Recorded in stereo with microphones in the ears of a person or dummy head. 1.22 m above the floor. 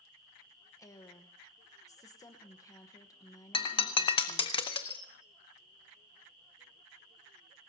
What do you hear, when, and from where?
0.8 s a woman speaking: 20° left (ahead or behind), 0.9 m
3.5 s breaking glass: 30° left (ahead or behind), 0.9 m